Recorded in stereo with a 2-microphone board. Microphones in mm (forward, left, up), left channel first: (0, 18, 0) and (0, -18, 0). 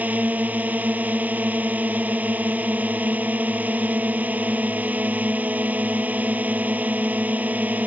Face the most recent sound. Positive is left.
turn(degrees=-50)  # may be behind; listen again after turning